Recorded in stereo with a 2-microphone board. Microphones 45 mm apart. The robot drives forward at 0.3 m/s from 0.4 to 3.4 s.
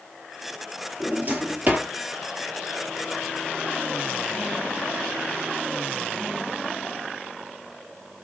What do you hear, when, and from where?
1.0 s a drawer: 40° right (ahead or behind), 1.2 m; by 1.9 s 35° right (ahead or behind), 1.4 m